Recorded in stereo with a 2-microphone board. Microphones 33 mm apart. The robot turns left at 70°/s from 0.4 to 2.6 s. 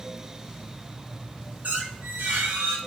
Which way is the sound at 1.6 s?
55° right.